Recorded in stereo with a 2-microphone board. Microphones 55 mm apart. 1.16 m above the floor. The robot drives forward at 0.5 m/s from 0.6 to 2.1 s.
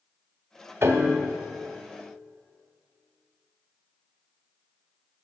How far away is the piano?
About 1.4 m.